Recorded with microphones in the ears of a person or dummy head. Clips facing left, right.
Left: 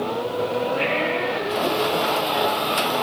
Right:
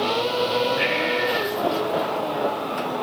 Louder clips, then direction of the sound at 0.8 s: Even; 10° right (ahead or behind).